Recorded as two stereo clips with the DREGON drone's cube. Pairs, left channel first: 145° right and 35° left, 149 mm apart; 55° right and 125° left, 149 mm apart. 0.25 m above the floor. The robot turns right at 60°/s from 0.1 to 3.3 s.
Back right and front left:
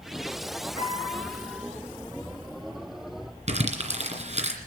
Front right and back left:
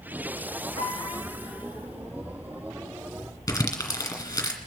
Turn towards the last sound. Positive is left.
turn(degrees=10)